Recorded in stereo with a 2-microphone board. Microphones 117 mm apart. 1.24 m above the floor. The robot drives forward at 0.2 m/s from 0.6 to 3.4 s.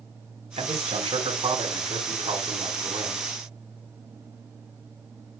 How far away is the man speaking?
About 4.5 m.